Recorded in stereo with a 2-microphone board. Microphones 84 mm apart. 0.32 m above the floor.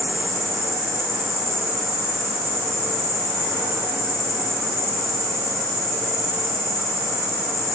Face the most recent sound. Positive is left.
turn(degrees=-35)  # may be behind; listen again after turning